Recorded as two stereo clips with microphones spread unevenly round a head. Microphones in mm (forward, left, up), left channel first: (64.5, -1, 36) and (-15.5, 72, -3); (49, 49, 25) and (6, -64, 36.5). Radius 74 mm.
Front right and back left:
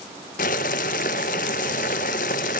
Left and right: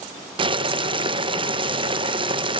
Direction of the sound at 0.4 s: 60° right.